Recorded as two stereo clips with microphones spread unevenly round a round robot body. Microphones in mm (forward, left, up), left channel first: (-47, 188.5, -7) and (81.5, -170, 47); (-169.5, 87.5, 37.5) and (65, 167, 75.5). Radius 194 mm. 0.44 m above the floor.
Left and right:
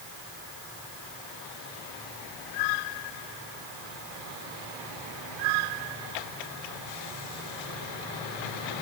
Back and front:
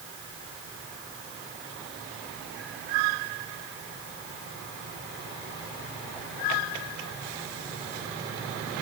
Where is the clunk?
I don't hear a clunk.